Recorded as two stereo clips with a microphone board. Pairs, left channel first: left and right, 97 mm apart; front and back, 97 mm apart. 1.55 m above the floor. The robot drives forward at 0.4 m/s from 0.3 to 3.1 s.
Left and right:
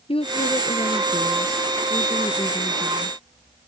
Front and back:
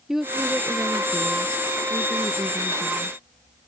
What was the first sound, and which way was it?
A woman speaking, 95° left.